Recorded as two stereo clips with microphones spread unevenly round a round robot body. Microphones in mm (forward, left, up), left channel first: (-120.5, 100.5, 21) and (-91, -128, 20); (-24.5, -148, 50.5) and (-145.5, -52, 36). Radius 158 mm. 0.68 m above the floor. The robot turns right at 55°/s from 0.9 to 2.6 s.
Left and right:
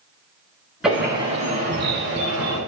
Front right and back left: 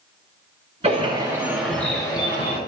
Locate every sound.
0.8 s a bird: 170° right, 7 m; by 2.6 s 75° right, 7 m